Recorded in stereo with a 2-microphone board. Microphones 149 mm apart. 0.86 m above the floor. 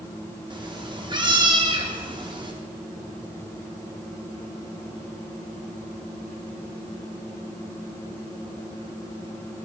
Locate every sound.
0.5 s a cat meowing: 30° right (ahead or behind), 0.7 m